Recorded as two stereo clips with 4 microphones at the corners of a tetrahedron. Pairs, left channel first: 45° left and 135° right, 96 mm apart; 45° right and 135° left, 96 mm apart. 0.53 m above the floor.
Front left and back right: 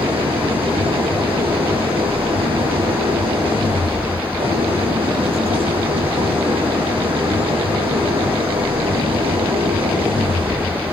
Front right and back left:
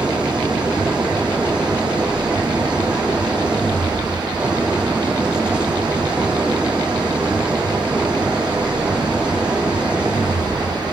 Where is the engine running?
150° right, 8 m.